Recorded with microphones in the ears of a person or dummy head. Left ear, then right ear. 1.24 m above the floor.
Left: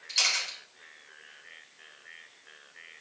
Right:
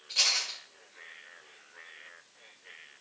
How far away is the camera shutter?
About 3 m.